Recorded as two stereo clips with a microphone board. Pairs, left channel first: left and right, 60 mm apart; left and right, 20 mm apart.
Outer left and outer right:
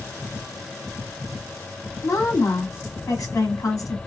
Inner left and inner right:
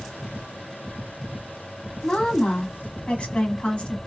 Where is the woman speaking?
60° left (ahead or behind), 1.5 m.